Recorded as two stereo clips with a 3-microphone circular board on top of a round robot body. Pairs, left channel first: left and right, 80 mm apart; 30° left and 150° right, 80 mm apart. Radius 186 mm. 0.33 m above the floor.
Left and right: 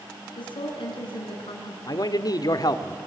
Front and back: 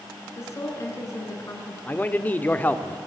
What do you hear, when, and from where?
0.4 s a woman speaking: 85° left, 5.5 m
1.9 s a man speaking: 90° left, 1.5 m